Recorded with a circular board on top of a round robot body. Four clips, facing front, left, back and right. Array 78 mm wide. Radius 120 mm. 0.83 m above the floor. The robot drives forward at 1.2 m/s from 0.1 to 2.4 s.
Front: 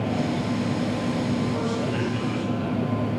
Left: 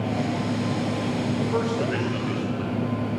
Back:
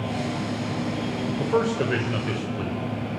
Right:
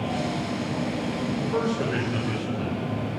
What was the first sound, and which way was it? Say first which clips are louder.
A man speaking: right 1 dB, back 3 dB; 170° left.